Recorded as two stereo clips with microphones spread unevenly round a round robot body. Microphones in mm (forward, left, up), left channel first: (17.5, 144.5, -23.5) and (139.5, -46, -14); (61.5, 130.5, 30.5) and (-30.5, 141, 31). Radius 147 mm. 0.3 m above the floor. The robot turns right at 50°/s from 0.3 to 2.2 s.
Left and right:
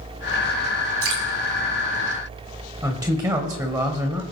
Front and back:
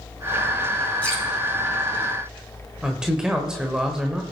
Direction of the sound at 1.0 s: 85° right.